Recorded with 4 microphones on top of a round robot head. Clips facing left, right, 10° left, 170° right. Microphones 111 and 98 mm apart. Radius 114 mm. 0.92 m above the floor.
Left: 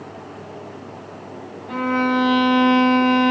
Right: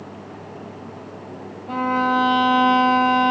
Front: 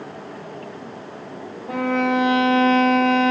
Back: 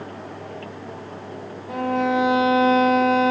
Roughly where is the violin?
Ahead right.